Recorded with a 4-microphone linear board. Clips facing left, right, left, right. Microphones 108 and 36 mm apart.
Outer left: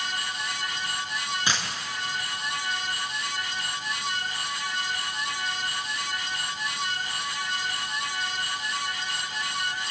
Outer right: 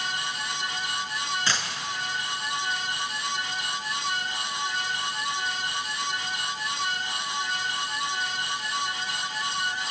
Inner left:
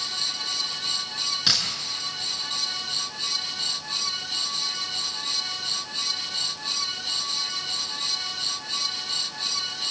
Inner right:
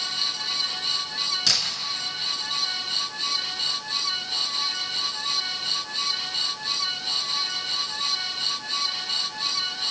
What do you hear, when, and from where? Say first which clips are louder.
1.5 s a dropped coin: outer left 3 dB, inner left 1 dB; 15° left (ahead or behind), 5 m